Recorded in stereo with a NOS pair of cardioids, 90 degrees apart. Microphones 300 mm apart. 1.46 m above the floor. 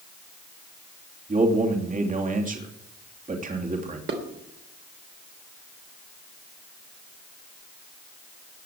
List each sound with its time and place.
1.3 s a man speaking: 25° right, 3 m
4.1 s dishes clattering: 45° right, 3 m